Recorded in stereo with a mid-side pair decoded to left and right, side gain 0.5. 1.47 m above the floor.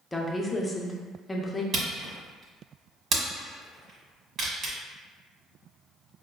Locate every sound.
0.1 s a woman speaking: 20° left, 0.7 m
1.7 s a camera shutter: 50° right, 1.3 m